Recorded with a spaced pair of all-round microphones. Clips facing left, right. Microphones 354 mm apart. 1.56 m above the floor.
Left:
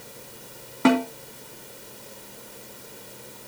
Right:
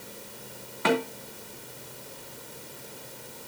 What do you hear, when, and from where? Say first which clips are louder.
0.8 s a snare drum: left 7 dB; 55° left (ahead or behind), 3 m